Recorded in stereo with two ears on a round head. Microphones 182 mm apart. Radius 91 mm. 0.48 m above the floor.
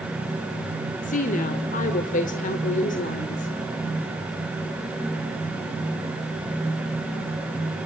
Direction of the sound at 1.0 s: 40° left (ahead or behind).